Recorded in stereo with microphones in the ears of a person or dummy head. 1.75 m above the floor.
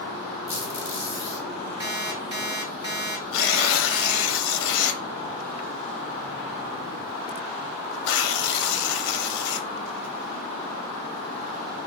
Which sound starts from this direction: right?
An alarm clock, at 1.8 s.